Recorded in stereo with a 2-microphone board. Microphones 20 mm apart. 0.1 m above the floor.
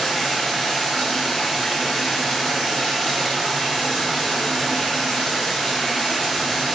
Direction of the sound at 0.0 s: Centre (ahead or behind).